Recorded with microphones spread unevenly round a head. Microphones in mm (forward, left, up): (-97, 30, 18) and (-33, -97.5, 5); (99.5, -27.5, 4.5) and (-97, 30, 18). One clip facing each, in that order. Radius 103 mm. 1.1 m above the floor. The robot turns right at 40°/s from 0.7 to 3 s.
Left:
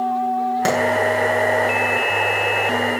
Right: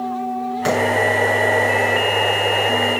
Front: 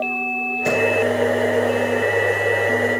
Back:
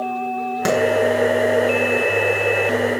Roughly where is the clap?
Behind.